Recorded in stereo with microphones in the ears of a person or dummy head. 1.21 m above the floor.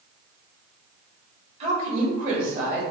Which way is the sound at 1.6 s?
40° right (ahead or behind).